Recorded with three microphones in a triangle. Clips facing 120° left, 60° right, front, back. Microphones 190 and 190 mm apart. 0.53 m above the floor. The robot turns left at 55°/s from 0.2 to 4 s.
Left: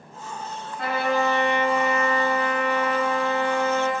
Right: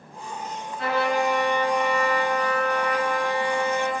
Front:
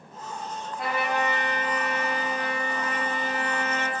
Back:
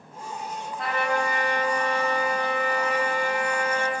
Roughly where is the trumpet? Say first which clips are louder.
Even, back 1 dB; left.